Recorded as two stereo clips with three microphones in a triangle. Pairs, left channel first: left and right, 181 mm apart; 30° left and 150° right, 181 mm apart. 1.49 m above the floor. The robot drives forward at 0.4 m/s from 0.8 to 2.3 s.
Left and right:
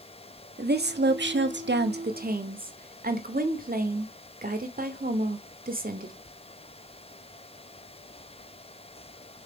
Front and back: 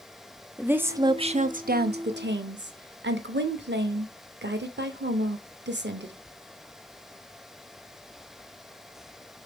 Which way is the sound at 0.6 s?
70° right.